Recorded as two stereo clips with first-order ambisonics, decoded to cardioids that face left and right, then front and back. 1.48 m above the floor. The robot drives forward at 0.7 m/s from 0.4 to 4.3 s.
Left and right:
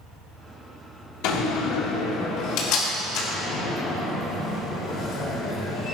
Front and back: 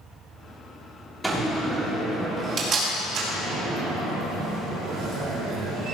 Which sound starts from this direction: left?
A door slam, at 1.2 s.